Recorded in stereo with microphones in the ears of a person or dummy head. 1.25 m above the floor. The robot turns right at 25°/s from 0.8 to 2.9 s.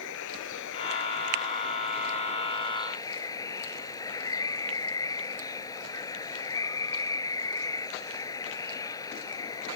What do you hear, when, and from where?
0.0 s running water: 110° left; by 9.8 s 165° left